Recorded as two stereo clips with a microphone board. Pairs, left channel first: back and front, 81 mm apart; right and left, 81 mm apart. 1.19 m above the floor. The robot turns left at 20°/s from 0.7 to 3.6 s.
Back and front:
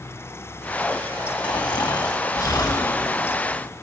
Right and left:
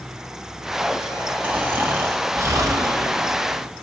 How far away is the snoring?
About 1.0 m.